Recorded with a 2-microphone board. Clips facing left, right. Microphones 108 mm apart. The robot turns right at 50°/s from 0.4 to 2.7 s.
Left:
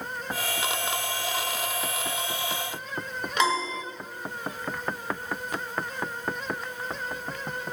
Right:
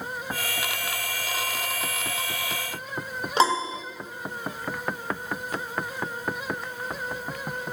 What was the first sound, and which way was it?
A piano, 30° right (ahead or behind).